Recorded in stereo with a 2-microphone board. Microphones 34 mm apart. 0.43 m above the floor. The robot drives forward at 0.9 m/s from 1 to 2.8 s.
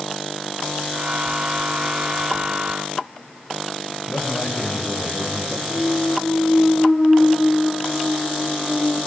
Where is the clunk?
20° left (ahead or behind), 4 m.